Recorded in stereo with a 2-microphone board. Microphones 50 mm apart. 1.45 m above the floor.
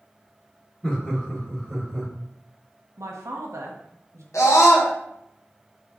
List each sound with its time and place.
0.8 s laughter: 20° left (ahead or behind), 1.8 m; by 2.1 s 30° left (ahead or behind), 3 m
3.0 s a man speaking: 70° right (ahead or behind), 1.0 m
4.3 s a scream: 80° left, 1.3 m